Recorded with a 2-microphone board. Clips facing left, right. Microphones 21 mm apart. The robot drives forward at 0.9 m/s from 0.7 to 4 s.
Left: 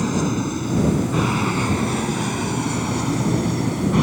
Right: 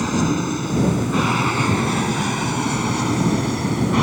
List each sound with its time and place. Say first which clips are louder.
0.0 s an aircraft: right 1 dB; 15° right (ahead or behind)